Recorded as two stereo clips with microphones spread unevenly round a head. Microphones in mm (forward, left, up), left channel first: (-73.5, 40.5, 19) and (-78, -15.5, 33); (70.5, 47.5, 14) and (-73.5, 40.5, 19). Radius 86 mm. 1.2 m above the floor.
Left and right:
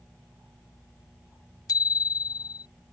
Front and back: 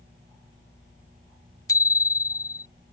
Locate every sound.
1.7 s a bicycle bell: 70° left